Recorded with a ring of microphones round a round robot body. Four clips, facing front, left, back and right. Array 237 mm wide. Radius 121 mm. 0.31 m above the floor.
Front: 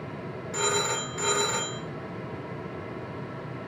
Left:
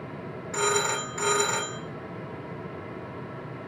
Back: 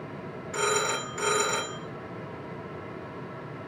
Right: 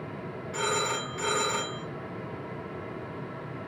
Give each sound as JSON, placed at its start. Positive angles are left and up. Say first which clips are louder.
{"t": 0.5, "sound": "a phone ringing", "louder": "left 3 dB, back 1 dB", "azimuth_deg": 95, "distance_m": 2.0}